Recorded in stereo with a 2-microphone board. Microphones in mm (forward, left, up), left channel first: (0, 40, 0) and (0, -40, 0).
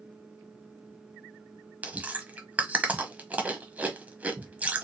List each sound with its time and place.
1.8 s chewing: 20° right (ahead or behind), 0.8 m